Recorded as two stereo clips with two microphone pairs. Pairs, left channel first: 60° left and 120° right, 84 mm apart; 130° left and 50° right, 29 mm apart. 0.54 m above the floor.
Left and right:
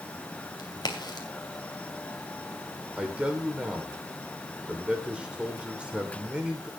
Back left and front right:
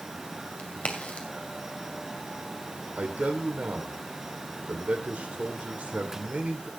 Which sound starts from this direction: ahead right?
A man speaking, at 3.0 s.